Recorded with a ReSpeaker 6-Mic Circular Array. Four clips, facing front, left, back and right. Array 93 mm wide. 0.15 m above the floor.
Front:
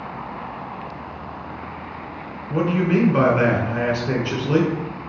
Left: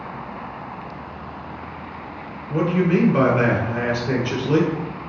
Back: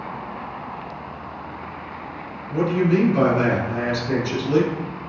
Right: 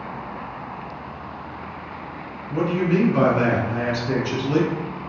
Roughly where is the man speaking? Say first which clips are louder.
Left 2 dB, even; ahead.